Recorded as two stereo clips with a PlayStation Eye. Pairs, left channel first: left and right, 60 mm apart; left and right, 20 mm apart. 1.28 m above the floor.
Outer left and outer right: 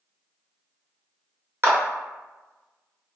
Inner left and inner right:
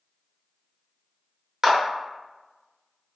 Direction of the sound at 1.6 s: 40° right (ahead or behind).